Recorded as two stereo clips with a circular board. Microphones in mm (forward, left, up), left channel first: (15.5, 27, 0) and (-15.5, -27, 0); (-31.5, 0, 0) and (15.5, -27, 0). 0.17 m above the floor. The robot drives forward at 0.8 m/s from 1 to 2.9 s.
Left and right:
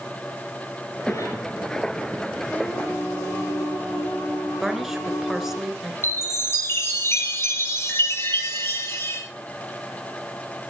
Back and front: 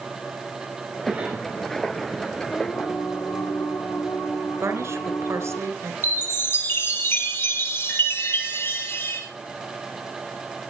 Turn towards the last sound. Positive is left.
turn(degrees=105)